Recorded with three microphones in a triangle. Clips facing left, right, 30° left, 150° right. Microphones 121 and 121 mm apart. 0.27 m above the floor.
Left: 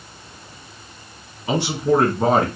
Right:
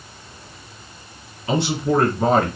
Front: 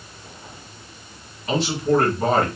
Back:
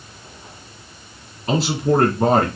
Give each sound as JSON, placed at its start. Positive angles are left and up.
{"t": 1.5, "sound": "a man speaking", "azimuth_deg": 155, "distance_m": 2.0}